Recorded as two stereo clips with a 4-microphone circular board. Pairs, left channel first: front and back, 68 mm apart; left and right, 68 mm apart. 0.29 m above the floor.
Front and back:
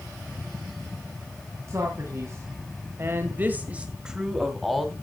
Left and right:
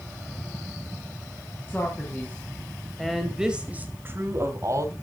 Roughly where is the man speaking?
Behind left.